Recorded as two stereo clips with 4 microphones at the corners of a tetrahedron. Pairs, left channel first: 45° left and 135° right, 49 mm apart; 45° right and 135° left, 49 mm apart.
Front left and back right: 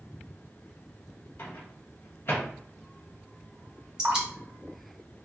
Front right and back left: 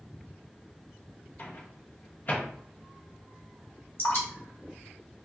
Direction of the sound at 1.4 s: 5° left.